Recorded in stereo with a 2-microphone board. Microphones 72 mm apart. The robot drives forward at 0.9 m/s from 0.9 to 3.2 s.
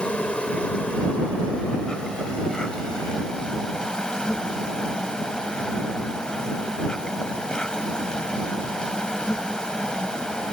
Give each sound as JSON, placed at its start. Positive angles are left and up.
{"t": 0.0, "sound": "an insect", "side_deg": 15}